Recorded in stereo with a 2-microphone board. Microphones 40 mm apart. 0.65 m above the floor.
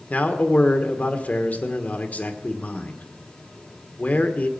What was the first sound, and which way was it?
A man speaking, 40° left (ahead or behind).